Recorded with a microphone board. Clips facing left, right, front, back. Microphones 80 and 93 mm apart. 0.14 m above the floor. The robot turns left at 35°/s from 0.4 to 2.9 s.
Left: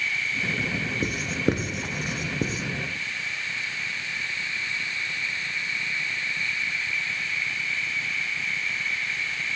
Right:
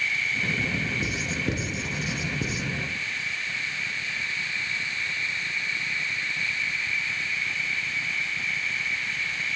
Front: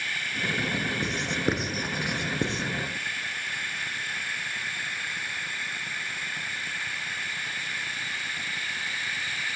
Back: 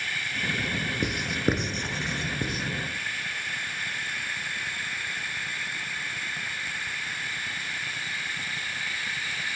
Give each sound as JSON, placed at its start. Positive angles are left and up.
{"t": 1.0, "sound": "writing", "azimuth_deg": 110, "distance_m": 0.7}